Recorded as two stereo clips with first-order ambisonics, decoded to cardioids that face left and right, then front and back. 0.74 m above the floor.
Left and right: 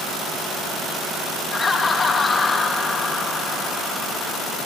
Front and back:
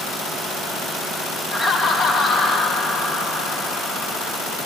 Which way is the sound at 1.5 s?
35° left.